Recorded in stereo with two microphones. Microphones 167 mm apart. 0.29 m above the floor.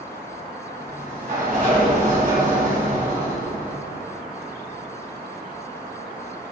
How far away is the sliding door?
About 2 m.